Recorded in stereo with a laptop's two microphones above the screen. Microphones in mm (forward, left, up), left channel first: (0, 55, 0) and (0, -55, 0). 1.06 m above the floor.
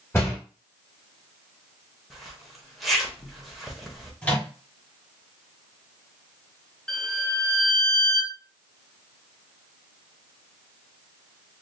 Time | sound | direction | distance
0.1 | a door slam | 20° left (ahead or behind) | 1.5 m
2.1 | a zipper | centre (ahead or behind) | 0.9 m
4.2 | a microwave | 15° left (ahead or behind) | 1.4 m
6.9 | a violin | 5° left (ahead or behind) | 0.6 m